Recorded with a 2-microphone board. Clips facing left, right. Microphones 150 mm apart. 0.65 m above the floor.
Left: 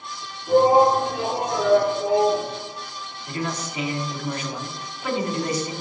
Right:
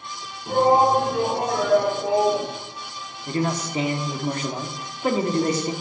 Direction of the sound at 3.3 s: 35° right (ahead or behind).